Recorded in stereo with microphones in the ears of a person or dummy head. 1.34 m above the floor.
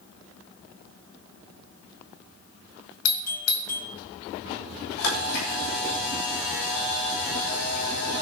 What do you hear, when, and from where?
3.0 s a doorbell: 70° left (ahead or behind), 1.4 m
5.0 s a camera shutter: 70° left (ahead or behind), 7.5 m